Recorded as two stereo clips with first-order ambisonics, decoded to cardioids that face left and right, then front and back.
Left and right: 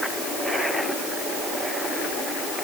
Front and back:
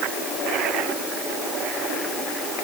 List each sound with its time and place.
Only background noise.